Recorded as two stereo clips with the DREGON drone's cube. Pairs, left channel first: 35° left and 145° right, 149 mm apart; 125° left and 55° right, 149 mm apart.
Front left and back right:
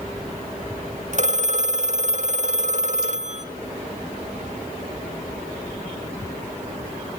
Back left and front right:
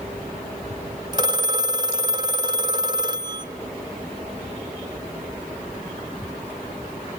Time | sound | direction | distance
1.1 | a phone ringing | 115° right | 1.1 m